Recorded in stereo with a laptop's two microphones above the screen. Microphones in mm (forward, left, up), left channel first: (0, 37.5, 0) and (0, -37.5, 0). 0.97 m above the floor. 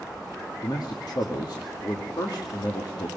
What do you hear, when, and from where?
0.6 s a man speaking: 70° left (ahead or behind), 2 m